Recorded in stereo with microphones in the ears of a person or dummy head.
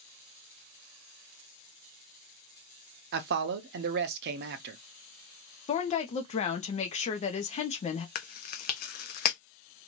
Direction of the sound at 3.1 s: 55° right (ahead or behind).